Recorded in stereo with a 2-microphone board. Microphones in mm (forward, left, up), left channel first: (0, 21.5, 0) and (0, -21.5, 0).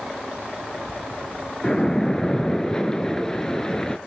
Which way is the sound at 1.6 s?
15° left (ahead or behind).